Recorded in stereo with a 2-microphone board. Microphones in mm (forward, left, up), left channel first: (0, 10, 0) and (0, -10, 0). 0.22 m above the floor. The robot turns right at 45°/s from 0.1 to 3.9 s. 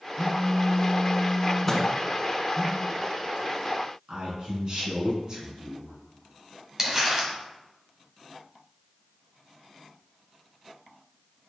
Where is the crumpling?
20° right (ahead or behind), 1.6 m.